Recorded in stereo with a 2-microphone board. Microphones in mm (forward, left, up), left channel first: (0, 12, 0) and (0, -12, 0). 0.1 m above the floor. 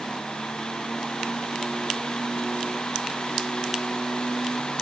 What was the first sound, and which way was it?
Only background noise.